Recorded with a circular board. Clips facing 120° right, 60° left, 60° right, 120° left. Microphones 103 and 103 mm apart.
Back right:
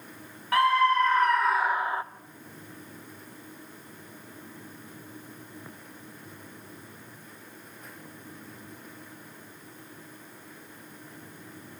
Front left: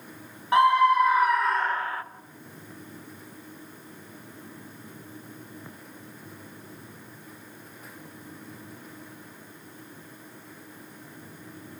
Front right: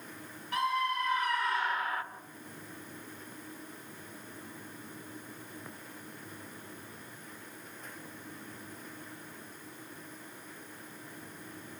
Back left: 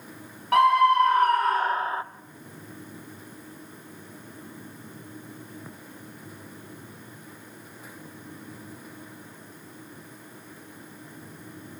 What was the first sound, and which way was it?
A scream, 125° left.